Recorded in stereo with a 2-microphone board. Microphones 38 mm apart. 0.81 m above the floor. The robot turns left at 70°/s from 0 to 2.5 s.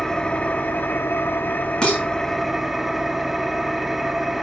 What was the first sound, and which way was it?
An engine running, 170° left.